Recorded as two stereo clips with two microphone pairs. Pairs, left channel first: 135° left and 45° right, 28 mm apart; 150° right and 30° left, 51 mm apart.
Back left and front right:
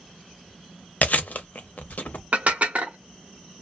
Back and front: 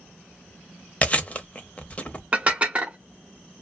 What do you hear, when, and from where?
1.0 s chewing: 150° left, 0.6 m
2.3 s dishes clattering: 30° right, 0.8 m